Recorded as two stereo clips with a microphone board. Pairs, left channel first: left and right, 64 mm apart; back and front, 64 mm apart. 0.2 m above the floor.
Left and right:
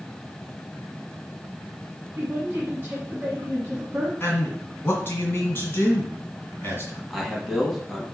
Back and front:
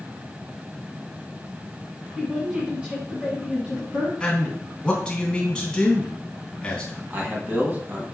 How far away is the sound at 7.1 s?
About 1.1 m.